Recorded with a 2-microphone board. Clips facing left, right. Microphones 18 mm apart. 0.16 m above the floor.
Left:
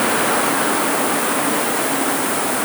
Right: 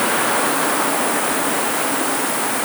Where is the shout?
No shout in this recording.